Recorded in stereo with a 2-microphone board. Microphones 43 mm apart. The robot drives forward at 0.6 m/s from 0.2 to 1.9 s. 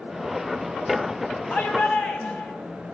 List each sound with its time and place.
1.5 s a shout: 45° left (ahead or behind), 8 m